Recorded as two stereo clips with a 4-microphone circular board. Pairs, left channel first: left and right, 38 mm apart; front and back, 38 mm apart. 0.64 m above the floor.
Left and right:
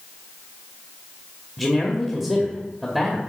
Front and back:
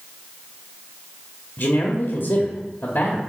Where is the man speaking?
10° left, 1.2 m.